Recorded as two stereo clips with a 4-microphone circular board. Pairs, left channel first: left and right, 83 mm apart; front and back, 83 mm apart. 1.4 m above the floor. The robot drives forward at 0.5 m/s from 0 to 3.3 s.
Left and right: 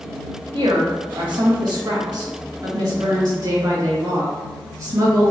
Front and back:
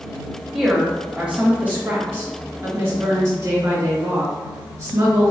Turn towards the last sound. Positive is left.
turn(degrees=-135)